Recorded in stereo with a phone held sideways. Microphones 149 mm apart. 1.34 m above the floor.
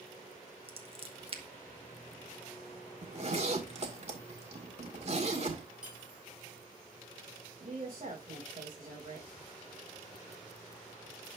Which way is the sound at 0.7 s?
40° right (ahead or behind).